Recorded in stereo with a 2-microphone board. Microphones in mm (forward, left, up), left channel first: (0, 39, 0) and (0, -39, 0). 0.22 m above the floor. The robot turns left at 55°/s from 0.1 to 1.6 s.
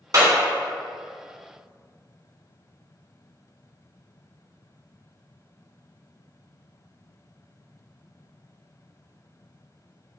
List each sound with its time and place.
0.1 s a clap: 55° right (ahead or behind), 1.6 m; by 0.3 s 50° right (ahead or behind), 1.6 m